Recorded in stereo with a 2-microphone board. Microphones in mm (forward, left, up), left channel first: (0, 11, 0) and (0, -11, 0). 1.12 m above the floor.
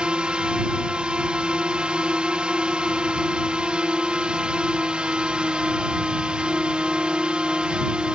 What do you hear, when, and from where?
0.0 s a drone: 50° right (ahead or behind)